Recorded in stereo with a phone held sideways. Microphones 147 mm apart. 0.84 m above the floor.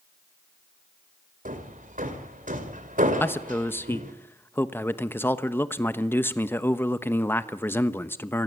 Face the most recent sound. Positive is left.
turn(degrees=15)  # may be behind; listen again after turning